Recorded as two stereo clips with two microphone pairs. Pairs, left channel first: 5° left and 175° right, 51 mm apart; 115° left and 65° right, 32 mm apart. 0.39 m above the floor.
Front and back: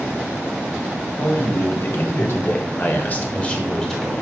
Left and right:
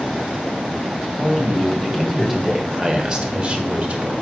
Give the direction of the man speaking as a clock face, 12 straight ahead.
11 o'clock.